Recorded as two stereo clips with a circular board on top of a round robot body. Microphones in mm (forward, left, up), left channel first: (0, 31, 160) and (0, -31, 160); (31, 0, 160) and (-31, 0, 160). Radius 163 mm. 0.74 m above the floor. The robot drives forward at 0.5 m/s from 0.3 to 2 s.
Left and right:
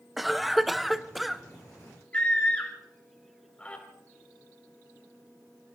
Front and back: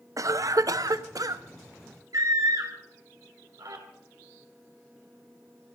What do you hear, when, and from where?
0.2 s a cough: straight behind, 0.9 m
2.1 s a scream: 160° left, 4.5 m